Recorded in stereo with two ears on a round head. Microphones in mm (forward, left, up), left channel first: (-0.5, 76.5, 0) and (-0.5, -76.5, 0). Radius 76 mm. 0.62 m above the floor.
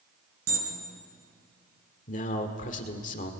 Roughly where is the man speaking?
Left.